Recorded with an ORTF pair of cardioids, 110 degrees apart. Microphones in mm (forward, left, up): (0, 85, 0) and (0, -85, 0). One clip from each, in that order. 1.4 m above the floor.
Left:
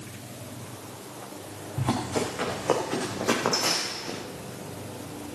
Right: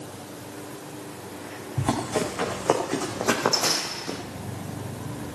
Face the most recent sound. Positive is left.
turn(degrees=-25)